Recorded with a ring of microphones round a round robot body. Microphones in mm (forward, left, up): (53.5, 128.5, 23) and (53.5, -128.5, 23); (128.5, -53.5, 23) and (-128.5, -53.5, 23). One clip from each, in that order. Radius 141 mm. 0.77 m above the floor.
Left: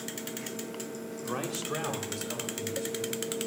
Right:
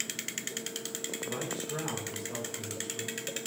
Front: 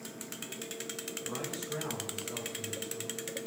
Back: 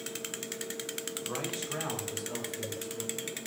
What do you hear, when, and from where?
1.2 s a man speaking: 100° left, 2.5 m; by 3.2 s 125° left, 4.5 m